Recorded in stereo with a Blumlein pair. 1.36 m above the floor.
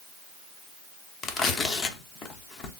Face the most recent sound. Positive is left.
turn(degrees=25)